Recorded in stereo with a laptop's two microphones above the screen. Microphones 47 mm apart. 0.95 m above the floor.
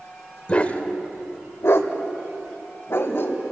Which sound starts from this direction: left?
A dog barking, at 0.5 s.